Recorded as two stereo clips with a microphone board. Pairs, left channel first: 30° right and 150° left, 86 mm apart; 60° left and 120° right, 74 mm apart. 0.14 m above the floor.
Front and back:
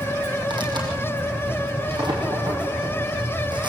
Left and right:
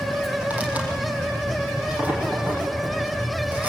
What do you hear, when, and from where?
0.5 s tearing paper: 175° left, 6 m